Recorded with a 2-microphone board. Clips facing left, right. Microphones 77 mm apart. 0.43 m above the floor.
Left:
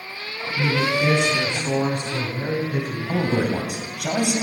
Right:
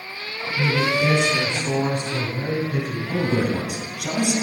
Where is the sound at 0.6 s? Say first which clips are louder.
Even; 70° left (ahead or behind), 3.5 m; by 3.0 s 65° left (ahead or behind), 6 m.